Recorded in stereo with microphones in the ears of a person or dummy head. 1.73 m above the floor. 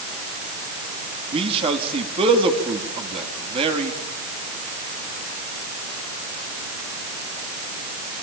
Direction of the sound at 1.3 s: 35° right (ahead or behind).